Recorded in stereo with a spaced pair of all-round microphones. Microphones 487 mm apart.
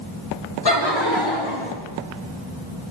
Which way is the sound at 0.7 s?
50° left (ahead or behind).